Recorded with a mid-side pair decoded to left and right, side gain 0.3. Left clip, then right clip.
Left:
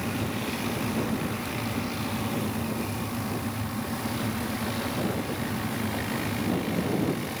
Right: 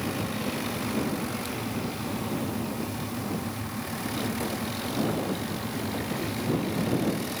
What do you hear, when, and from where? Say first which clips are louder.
0.0 s a fan: even; 30° left